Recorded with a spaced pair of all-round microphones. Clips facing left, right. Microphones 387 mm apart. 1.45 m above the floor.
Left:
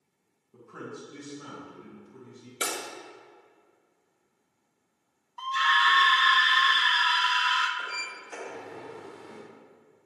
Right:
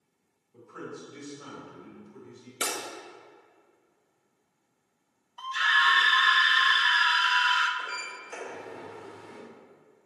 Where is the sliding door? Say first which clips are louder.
Even; 55° left (ahead or behind), 2 m.